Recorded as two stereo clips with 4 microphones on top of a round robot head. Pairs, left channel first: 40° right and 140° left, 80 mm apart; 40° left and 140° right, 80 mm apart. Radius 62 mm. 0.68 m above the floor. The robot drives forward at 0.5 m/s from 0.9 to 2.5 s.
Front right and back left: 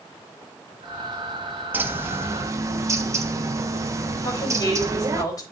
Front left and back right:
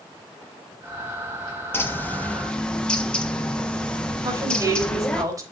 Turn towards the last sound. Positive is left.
turn(degrees=-90)